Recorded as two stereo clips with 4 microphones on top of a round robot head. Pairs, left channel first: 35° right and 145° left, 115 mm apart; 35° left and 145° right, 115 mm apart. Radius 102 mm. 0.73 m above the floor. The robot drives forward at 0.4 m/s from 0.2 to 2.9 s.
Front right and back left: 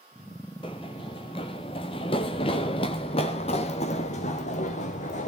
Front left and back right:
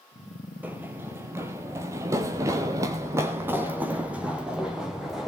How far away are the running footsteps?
About 0.8 m.